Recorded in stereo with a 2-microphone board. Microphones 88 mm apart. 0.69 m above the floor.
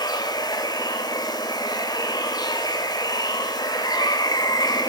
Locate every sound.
0.0 s running water: 55° left (ahead or behind), 2.5 m